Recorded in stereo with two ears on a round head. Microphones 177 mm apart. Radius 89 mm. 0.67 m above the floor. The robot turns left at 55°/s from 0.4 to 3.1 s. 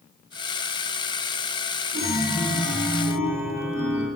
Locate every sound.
1.9 s a chime: 85° left, 2.5 m; by 4.1 s 20° left, 2.5 m